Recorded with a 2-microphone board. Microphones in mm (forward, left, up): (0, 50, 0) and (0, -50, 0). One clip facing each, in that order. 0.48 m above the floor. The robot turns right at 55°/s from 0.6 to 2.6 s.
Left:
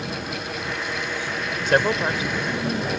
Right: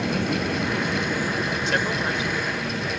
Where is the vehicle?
80° right; by 3.0 s 30° left.